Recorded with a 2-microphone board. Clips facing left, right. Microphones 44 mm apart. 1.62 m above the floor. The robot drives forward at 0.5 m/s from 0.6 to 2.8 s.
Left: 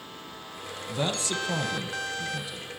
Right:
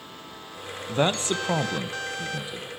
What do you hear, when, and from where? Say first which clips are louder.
0.9 s a man speaking: right 6 dB; 40° right (ahead or behind), 0.7 m; by 2.7 s 25° right (ahead or behind), 1.0 m